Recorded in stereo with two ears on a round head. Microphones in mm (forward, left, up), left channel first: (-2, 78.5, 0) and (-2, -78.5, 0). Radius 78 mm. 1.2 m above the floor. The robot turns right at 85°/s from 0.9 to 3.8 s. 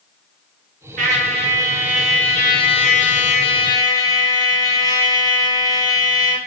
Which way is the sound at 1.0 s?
90° right.